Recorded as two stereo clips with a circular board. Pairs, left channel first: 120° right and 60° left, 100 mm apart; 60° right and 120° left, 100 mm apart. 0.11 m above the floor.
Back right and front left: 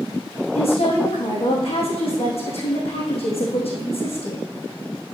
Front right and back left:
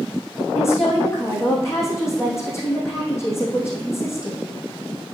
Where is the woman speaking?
125° right, 5 m.